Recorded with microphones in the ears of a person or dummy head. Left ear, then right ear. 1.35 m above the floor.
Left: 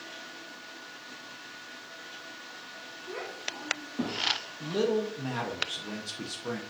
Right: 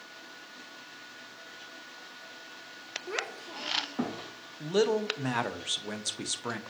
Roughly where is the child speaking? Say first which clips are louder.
Right 1 dB; right.